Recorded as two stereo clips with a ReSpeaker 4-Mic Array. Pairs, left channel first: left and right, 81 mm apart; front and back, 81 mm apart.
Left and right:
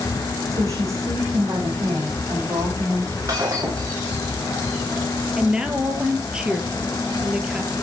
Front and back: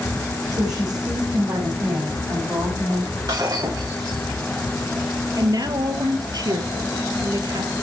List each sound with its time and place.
0.5 s a woman speaking: 140° right, 6.5 m
3.3 s breaking glass: 140° right, 10 m
5.4 s a woman speaking: 170° right, 2.5 m